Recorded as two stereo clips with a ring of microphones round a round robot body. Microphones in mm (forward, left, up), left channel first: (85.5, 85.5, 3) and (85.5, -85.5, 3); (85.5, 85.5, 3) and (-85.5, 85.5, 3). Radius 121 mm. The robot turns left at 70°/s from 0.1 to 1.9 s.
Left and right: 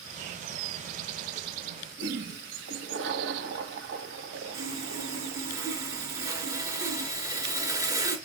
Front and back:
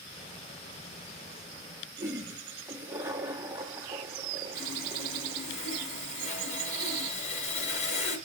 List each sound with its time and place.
2.0 s a toilet flushing: 105° right, 1.2 m
4.5 s sawing: 20° right, 3 m